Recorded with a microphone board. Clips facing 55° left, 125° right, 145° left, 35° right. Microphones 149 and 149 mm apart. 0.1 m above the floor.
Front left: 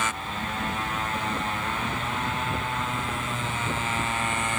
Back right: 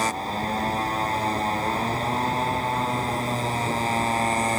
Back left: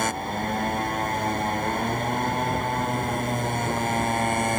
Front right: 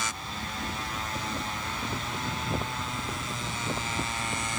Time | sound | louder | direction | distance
0.0 | a motorcycle | back right 5 dB, back left 10 dB | straight behind | ?